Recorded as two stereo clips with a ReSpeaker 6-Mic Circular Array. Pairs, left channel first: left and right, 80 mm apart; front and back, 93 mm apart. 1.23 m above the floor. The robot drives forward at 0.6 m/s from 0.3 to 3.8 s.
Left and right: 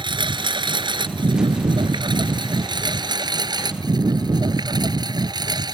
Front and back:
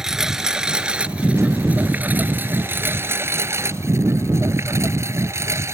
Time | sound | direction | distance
0.0 | a lawn mower | 95° right | ?